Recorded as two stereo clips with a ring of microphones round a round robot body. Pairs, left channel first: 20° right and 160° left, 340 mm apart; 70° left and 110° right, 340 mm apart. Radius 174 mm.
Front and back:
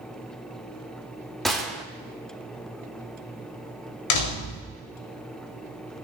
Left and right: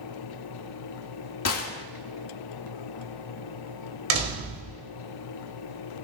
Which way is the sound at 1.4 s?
65° left.